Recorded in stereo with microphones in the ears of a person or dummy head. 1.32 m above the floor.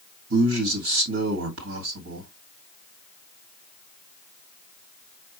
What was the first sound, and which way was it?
A man speaking, 85° right.